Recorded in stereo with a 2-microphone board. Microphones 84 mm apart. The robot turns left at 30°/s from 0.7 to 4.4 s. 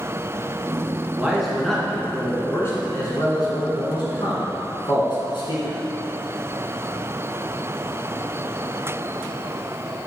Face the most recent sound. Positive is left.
turn(degrees=90)